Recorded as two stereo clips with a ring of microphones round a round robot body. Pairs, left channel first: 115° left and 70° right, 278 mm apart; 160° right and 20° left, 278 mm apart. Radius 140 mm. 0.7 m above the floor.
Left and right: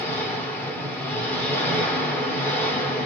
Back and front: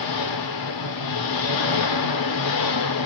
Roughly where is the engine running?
Behind.